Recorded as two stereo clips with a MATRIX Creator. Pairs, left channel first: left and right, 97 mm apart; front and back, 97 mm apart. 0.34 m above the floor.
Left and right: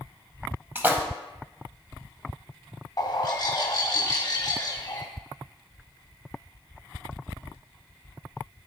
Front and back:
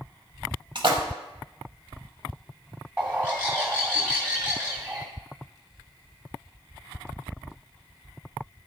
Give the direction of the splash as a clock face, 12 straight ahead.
5 o'clock.